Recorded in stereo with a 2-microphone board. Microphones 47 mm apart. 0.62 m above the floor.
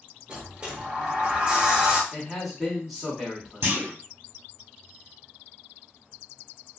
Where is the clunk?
55° right (ahead or behind), 0.8 m.